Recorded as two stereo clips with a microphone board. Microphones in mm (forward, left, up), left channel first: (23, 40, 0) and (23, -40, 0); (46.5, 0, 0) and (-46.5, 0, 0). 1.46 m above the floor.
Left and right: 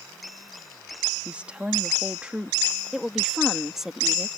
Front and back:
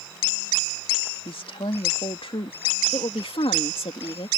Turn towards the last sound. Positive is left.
turn(degrees=-5)